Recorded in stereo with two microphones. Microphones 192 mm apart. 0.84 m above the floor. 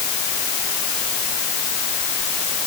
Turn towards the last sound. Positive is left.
No sound to turn to.